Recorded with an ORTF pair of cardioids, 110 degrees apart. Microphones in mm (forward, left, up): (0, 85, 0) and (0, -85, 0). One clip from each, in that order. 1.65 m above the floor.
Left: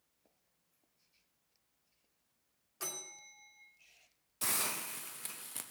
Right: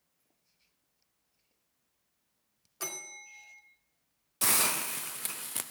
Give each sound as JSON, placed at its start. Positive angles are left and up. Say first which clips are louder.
{"t": 2.8, "sound": "a bell", "louder": "right 4 dB", "azimuth_deg": -20, "distance_m": 2.5}
{"t": 4.4, "sound": "a hiss", "louder": "right 8 dB", "azimuth_deg": -30, "distance_m": 0.5}